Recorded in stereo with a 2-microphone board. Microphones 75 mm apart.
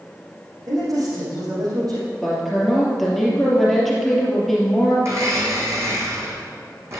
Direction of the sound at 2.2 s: 5° left (ahead or behind).